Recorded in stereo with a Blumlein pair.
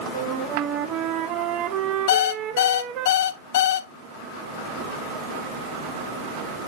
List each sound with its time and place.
0.1 s a flute: 35° right, 0.8 m
2.1 s an alarm clock: 55° left, 0.7 m